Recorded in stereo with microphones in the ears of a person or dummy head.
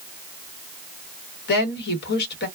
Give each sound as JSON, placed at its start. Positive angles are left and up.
{"t": 1.5, "sound": "a woman speaking", "side_deg": 55, "distance_m": 1.0}